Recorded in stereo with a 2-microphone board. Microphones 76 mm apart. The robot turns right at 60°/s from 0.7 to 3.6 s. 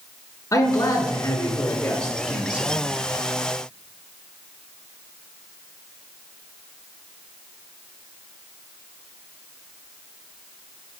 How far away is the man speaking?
About 1.8 m.